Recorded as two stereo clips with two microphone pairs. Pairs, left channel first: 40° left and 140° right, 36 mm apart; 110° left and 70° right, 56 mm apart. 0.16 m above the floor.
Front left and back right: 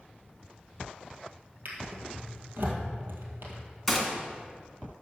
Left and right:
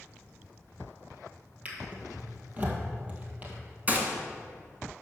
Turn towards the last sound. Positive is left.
turn(degrees=-55)